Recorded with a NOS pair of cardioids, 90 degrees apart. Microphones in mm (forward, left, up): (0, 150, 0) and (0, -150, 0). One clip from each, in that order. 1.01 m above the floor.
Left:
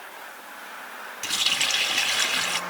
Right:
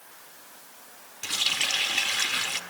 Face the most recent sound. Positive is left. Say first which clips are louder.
# left 2 dB
turn(degrees=15)